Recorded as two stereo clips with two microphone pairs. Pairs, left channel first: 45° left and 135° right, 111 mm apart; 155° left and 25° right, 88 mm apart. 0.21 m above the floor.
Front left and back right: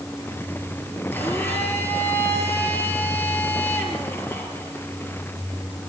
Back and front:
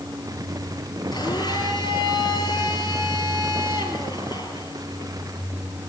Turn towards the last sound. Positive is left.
turn(degrees=120)